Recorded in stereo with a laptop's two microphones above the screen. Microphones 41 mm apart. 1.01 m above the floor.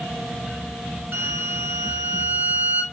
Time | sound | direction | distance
1.1 | a violin | 60° right (ahead or behind) | 0.9 m